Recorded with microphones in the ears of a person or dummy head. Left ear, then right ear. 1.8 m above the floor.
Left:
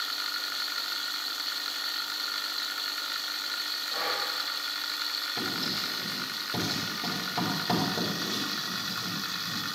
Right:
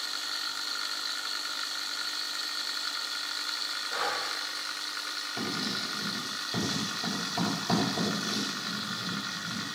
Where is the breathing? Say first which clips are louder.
Left 1 dB; 30° right (ahead or behind), 1.9 m.